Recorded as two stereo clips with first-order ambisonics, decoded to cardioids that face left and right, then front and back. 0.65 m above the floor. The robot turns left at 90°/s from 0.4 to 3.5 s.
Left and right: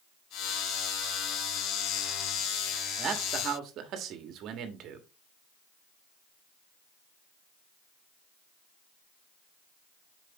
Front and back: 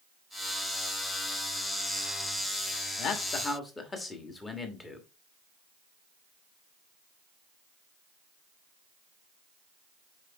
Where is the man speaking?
25° right, 1.1 m; by 5.1 s 70° right, 1.1 m.